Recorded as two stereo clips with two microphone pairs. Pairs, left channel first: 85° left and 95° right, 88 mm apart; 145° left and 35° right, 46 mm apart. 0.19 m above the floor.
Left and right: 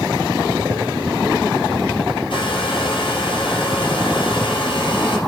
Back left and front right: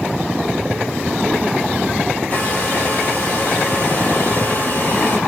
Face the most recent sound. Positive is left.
turn(degrees=95)